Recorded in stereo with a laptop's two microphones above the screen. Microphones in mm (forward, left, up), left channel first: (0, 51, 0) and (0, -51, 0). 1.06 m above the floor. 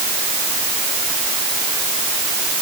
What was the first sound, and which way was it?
Only background noise.